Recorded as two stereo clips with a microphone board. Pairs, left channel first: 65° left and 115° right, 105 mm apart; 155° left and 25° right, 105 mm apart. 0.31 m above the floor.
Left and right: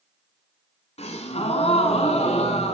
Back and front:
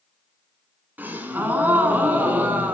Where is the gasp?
50° left, 1.1 m.